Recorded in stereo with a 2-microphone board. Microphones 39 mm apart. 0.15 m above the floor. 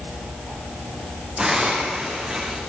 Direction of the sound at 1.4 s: 15° right (ahead or behind).